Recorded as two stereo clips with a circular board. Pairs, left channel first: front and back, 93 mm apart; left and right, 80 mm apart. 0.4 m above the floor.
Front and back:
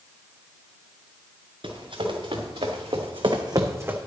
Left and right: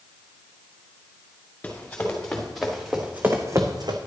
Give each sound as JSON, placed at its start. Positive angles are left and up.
{"t": 1.6, "sound": "running footsteps", "azimuth_deg": 160, "distance_m": 2.5}